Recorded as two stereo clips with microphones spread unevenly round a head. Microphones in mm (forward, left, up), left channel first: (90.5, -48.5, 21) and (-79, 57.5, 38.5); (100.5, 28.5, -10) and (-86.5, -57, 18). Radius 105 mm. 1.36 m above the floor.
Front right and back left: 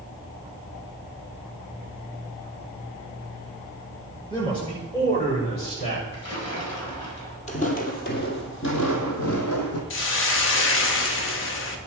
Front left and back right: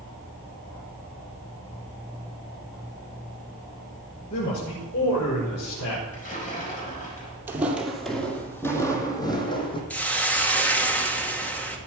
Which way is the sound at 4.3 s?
35° left.